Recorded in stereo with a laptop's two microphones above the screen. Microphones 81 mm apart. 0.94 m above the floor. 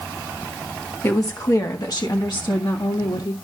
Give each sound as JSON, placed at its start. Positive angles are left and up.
{"t": 1.0, "sound": "a woman speaking", "side_deg": 35, "distance_m": 1.6}